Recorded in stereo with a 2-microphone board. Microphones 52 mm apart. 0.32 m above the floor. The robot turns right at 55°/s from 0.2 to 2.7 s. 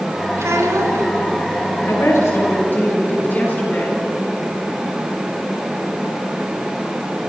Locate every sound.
0.4 s a child speaking: 115° right, 3.5 m; by 1.1 s 80° right, 3.5 m
1.9 s a woman speaking: 95° left, 7 m; by 4.0 s 140° left, 7 m